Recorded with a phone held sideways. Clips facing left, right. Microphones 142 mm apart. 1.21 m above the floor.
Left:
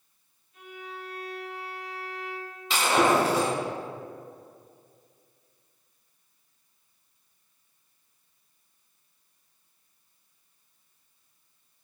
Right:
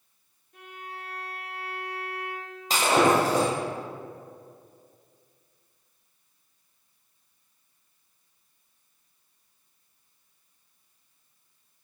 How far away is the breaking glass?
About 2.5 m.